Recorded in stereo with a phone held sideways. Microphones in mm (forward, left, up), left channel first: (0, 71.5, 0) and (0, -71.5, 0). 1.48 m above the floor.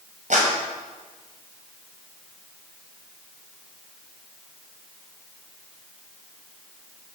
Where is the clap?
60° right (ahead or behind), 6 m.